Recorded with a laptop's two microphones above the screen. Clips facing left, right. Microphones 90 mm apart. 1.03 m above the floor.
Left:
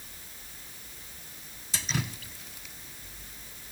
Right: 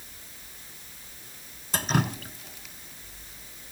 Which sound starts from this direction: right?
Dripping, at 1.7 s.